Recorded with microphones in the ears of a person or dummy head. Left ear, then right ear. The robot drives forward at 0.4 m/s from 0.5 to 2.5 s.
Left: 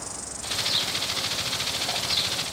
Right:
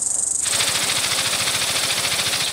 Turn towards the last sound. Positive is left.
turn(degrees=-25)  # may be behind; listen again after turning